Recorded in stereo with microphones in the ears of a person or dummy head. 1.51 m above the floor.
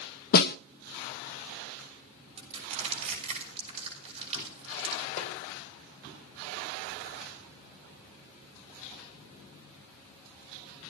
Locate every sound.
0.3 s a snare drum: 50° left (ahead or behind), 0.6 m
2.4 s crushing: 35° right (ahead or behind), 8.5 m
5.2 s a snare drum: 35° left (ahead or behind), 3.5 m